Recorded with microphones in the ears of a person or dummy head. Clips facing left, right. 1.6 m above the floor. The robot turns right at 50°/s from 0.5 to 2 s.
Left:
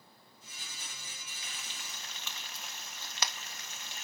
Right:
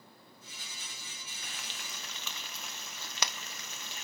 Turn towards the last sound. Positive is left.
turn(degrees=-70)  # may be behind; listen again after turning